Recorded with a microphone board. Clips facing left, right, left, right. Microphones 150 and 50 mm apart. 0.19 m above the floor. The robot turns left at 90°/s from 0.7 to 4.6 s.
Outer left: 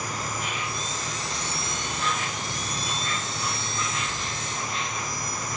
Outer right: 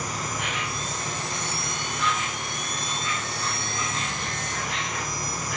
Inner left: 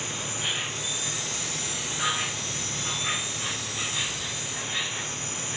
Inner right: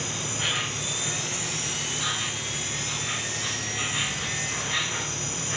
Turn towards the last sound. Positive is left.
turn(degrees=-90)